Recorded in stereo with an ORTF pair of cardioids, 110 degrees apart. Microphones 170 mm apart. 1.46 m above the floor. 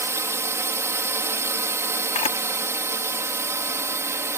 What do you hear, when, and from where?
0.0 s a drone: 15° right
2.1 s a camera shutter: 40° left